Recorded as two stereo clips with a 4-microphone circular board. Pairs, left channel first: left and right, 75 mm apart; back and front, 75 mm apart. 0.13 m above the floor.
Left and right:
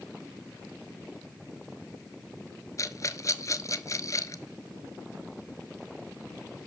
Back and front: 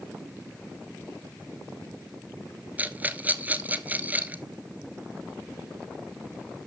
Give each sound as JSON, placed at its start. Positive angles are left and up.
{"t": 2.8, "sound": "a rattle", "azimuth_deg": 60, "distance_m": 0.9}